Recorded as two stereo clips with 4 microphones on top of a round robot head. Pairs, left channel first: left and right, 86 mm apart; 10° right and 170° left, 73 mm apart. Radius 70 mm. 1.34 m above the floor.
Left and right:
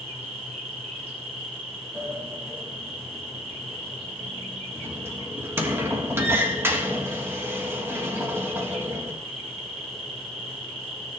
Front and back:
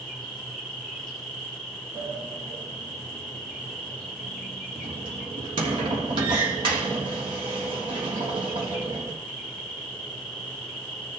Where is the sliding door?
155° right, 1.4 m.